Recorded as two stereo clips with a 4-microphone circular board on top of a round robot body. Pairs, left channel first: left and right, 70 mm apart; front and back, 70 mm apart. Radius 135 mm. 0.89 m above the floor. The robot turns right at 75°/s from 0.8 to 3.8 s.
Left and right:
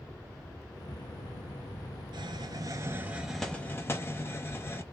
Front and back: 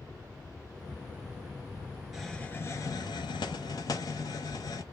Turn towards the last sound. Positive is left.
turn(degrees=30)